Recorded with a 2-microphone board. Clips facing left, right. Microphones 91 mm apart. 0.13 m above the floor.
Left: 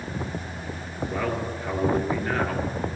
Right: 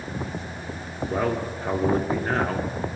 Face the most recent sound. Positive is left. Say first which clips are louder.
# right 3 dB
turn(degrees=-35)  # may be behind; listen again after turning